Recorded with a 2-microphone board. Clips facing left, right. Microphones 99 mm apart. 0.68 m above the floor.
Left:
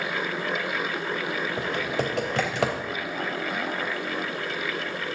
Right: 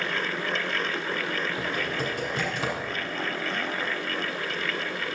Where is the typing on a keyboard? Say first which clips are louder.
Left 2 dB; 80° left, 3 m.